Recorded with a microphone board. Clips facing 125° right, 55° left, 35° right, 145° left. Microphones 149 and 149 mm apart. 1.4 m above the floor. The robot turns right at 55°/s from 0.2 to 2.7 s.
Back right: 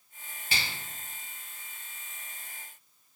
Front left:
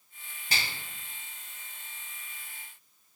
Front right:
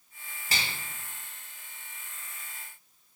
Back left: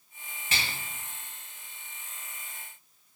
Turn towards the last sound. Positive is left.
turn(degrees=135)